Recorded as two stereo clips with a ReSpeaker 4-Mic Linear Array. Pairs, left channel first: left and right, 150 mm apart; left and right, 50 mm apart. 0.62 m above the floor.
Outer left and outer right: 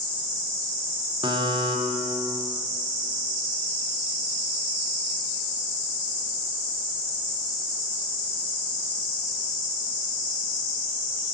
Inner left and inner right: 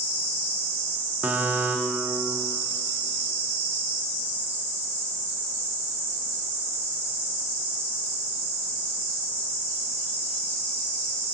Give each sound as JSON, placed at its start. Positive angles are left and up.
{"t": 1.2, "sound": "a buzzer", "side_deg": -30, "distance_m": 0.8}